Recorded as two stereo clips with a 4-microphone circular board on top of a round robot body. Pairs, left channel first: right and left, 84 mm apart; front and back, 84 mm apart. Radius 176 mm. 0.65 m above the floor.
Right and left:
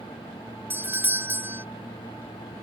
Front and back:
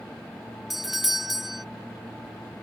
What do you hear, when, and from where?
0.7 s a doorbell: 95° left